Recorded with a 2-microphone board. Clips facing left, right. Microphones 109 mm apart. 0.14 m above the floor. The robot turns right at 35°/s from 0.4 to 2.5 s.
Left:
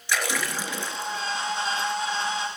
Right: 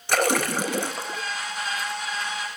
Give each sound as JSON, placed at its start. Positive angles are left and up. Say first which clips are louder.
{"t": 0.1, "sound": "a splash", "louder": "right 6 dB", "side_deg": -60, "distance_m": 0.6}